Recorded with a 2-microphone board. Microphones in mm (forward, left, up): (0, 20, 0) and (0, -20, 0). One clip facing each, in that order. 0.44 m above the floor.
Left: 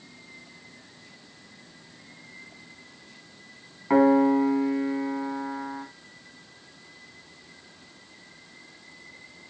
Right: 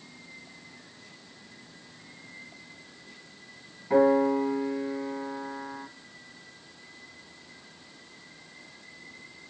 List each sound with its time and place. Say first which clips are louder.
3.9 s a piano: left 3 dB; 75° left (ahead or behind), 1.2 m